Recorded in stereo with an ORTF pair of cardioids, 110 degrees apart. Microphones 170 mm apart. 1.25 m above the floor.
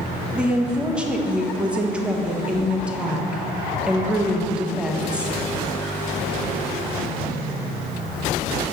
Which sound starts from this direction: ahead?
A woman speaking, at 0.3 s.